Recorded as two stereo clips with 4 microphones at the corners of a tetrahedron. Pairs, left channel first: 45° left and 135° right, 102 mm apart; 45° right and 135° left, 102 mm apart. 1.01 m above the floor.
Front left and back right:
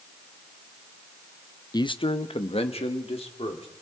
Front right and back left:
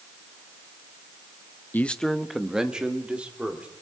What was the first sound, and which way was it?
A man speaking, 15° left.